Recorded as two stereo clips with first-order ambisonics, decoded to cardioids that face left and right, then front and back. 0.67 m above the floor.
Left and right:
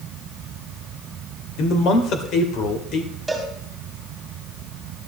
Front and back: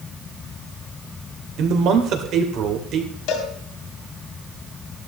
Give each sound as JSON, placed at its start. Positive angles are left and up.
{"t": 1.6, "sound": "a man speaking", "azimuth_deg": 135, "distance_m": 2.0}
{"t": 3.3, "sound": "a cowbell", "azimuth_deg": 0, "distance_m": 2.5}